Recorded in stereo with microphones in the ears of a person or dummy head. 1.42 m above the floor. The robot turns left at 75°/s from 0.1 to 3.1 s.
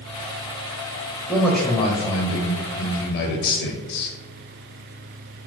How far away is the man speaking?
About 0.7 m.